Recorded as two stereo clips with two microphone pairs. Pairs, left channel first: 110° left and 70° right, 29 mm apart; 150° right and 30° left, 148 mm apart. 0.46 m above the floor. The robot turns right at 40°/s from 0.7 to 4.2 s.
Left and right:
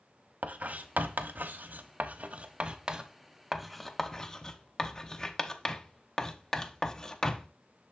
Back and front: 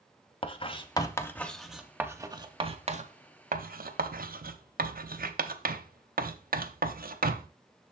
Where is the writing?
100° right, 0.7 m; by 7.5 s 40° left, 0.7 m.